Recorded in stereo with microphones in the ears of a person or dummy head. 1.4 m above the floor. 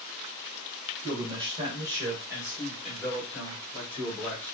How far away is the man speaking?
About 1.7 m.